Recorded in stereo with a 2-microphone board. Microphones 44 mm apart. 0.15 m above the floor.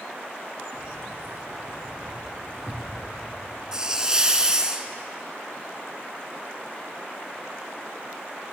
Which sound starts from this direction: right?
Keys jangling, at 0.7 s.